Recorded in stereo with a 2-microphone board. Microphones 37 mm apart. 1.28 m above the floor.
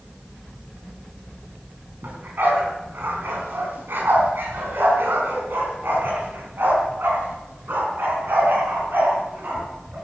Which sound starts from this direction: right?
A dog barking, at 2.0 s.